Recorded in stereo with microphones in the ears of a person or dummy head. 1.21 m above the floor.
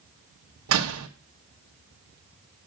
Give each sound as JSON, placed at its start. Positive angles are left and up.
{"t": 0.7, "sound": "a door slam", "side_deg": -80, "distance_m": 1.1}